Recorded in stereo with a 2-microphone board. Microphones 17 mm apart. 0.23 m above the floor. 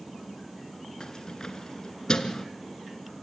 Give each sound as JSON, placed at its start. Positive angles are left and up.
{"t": 1.0, "sound": "keys jangling", "side_deg": 40, "distance_m": 2.0}